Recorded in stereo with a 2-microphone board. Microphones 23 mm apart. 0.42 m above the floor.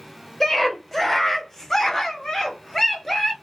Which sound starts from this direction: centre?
A scream, at 0.4 s.